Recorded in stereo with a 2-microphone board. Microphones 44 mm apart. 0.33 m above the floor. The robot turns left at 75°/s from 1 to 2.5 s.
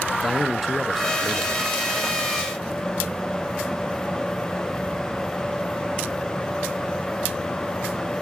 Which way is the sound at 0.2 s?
Centre (ahead or behind).